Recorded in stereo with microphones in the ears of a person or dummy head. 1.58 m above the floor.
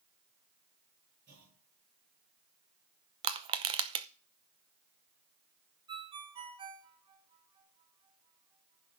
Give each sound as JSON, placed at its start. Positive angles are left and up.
{"t": 1.3, "sound": "a clunk", "side_deg": -50, "distance_m": 8.5}
{"t": 3.2, "sound": "crushing", "side_deg": -25, "distance_m": 0.7}
{"t": 5.9, "sound": "a ringtone", "side_deg": -25, "distance_m": 1.4}